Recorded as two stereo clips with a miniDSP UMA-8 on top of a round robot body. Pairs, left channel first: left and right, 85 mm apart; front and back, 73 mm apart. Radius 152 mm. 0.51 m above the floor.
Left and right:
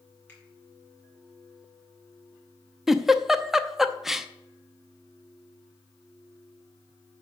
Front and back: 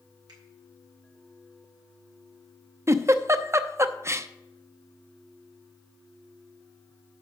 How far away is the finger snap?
About 4 m.